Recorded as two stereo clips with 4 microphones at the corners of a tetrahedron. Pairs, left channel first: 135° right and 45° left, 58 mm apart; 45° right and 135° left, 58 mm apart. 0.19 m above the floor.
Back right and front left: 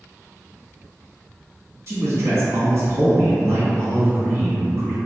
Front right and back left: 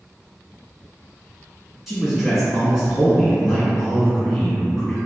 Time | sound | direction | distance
1.9 | a man speaking | 50° left | 1.5 m